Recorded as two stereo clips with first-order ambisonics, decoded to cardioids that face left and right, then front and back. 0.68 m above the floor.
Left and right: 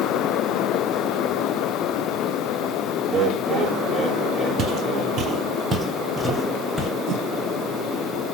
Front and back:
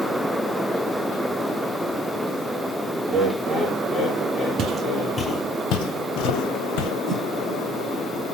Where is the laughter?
115° right, 1.2 m; by 5.2 s 15° right, 1.8 m.